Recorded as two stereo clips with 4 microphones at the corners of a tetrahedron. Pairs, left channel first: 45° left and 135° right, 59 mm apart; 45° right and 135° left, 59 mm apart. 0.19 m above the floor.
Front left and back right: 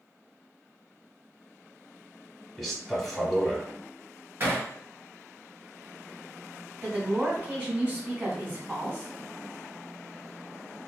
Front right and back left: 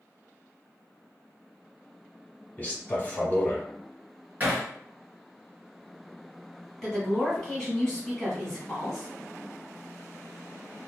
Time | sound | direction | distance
2.6 | a man speaking | 45° right | 1.1 m
4.4 | hammering | 175° right | 1.6 m
6.8 | a woman speaking | 120° right | 1.3 m